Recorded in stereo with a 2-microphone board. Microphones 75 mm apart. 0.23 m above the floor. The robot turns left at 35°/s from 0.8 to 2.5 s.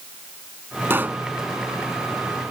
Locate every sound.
0.9 s a pop: 30° right (ahead or behind); by 1.2 s 20° right (ahead or behind)